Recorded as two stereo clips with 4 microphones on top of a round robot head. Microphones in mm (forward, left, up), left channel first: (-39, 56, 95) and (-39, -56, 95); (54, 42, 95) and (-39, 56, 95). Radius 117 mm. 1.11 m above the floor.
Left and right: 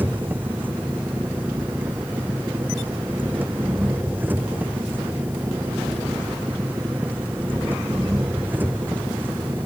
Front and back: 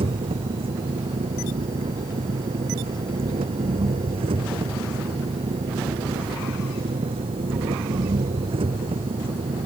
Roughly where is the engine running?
Behind.